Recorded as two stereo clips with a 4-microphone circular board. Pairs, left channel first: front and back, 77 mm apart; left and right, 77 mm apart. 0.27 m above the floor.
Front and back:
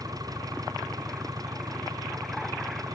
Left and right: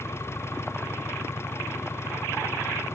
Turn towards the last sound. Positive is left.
turn(degrees=145)